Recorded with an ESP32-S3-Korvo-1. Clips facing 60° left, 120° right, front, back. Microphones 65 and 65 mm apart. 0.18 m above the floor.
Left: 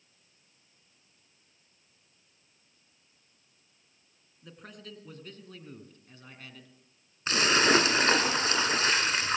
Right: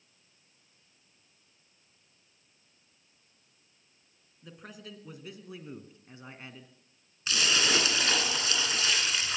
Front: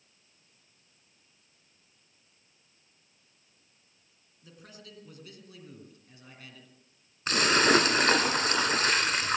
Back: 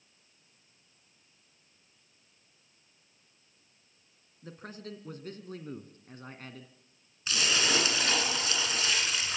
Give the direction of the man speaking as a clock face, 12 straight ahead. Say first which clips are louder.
Right 1 dB, back 7 dB; 7 o'clock.